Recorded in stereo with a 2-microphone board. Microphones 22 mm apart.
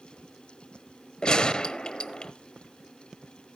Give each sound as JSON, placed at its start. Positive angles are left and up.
{"t": 1.2, "sound": "a gunshot", "side_deg": 40, "distance_m": 0.9}